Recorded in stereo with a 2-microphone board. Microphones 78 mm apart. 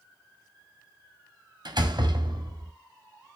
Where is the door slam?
65° right (ahead or behind), 1.8 m.